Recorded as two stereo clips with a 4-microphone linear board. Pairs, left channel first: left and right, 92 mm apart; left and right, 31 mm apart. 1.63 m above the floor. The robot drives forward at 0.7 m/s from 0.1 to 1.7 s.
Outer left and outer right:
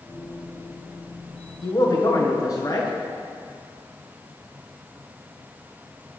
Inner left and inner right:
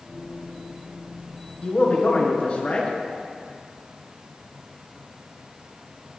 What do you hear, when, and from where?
1.6 s a man speaking: 45° left (ahead or behind), 1.6 m; by 2.9 s 40° left (ahead or behind), 1.6 m